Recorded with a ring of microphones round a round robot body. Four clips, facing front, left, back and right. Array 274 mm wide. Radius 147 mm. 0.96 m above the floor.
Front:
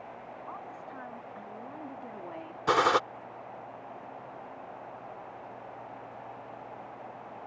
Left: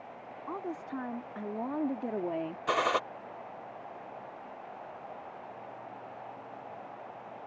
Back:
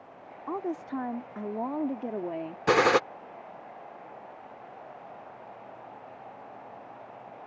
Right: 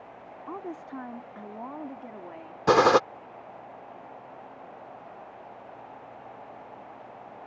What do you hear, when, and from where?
0.5 s a woman speaking: 175° right; by 2.6 s 125° left
2.7 s a gunshot: 115° right